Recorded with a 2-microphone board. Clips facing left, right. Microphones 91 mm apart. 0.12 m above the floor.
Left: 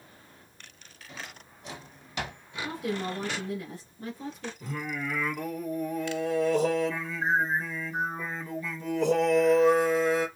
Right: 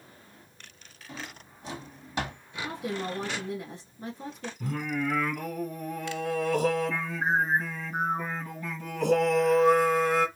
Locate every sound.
1.1 s a drawer: 30° right (ahead or behind), 1.6 m
2.6 s a woman speaking: 20° right (ahead or behind), 1.4 m
4.6 s singing: 50° right (ahead or behind), 1.6 m